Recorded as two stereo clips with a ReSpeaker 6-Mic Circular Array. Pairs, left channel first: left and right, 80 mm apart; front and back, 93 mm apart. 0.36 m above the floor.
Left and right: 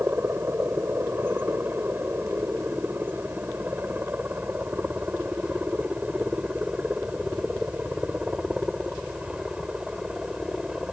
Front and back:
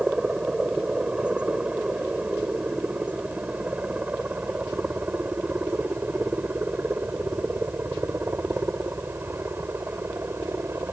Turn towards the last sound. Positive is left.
turn(degrees=-160)